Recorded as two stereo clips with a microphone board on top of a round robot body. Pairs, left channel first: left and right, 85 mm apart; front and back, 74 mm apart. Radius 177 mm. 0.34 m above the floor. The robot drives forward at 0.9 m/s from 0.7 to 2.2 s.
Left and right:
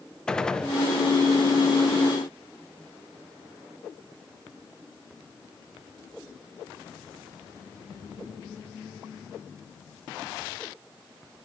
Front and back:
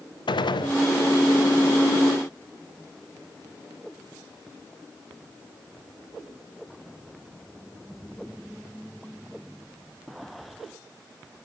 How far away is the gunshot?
About 0.6 m.